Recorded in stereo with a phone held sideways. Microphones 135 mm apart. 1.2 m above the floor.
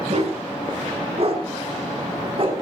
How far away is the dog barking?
About 5 m.